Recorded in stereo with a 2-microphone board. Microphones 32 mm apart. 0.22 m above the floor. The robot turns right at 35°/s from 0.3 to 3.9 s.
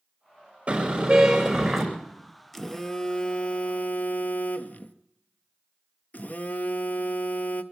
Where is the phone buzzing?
Straight ahead, 0.7 m; by 7.6 s 50° left, 0.7 m.